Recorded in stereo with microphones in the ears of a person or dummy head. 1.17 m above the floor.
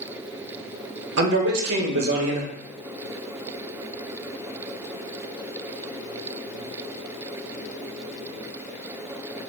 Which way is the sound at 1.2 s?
60° right (ahead or behind).